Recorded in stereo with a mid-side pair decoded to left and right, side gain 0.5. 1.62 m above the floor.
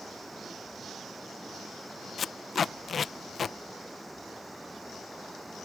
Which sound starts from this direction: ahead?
Running water, at 0.0 s.